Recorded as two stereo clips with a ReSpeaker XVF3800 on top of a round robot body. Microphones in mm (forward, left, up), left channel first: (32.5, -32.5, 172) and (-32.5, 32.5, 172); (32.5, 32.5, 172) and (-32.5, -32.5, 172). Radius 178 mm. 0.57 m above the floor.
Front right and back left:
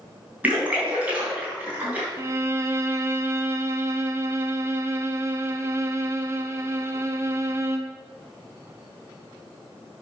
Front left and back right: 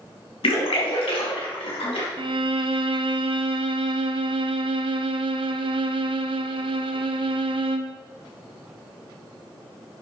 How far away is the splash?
About 3 m.